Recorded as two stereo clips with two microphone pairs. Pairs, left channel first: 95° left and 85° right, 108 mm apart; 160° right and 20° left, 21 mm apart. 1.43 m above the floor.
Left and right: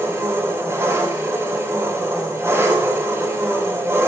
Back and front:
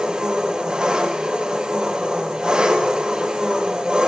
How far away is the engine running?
About 5 m.